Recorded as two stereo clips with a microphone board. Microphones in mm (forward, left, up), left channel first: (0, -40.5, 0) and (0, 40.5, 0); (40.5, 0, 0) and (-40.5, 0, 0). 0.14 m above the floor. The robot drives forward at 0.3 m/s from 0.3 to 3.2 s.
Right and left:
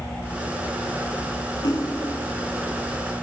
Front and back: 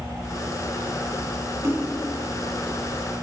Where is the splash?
130° right, 8 m.